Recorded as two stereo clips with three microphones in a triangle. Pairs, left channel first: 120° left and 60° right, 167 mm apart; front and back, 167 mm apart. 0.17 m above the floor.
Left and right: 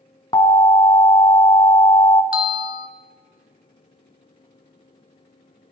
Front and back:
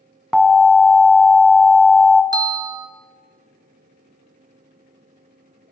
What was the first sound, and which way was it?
An alarm, 95° left.